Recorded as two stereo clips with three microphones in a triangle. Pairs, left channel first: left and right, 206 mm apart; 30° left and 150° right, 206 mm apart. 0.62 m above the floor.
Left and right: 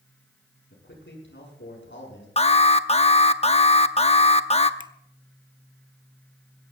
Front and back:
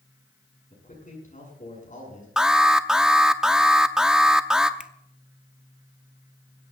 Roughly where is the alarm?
Behind left.